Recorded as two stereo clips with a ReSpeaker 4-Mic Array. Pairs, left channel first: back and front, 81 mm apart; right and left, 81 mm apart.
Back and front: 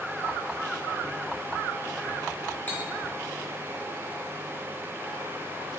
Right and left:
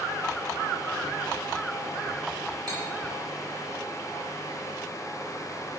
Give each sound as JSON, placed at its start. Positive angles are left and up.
{"t": 2.7, "sound": "cutlery clinking", "azimuth_deg": 115, "distance_m": 1.0}